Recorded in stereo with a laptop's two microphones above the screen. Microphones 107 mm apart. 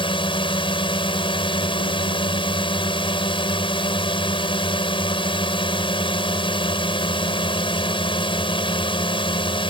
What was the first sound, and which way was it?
A drone, 50° left (ahead or behind).